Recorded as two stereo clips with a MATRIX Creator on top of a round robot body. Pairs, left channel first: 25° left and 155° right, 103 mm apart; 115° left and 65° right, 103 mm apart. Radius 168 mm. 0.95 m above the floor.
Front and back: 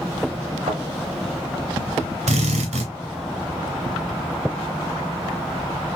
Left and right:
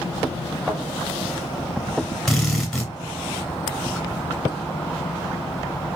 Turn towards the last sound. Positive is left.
turn(degrees=-160)